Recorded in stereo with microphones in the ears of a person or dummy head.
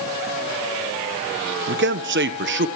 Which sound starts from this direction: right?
A man speaking, at 1.7 s.